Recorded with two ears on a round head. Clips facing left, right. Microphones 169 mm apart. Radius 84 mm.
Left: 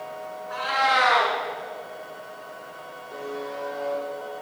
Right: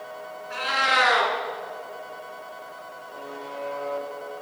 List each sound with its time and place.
0.5 s a cat meowing: 35° right (ahead or behind), 2.5 m
3.1 s a buzzer: 65° left (ahead or behind), 7 m